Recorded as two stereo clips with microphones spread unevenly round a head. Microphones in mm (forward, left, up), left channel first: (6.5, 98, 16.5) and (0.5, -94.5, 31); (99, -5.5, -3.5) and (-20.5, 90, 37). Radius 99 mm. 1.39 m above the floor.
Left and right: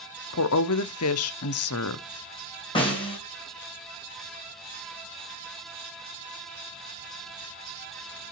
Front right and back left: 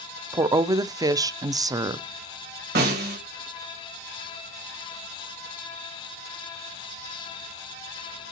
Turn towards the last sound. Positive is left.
turn(degrees=155)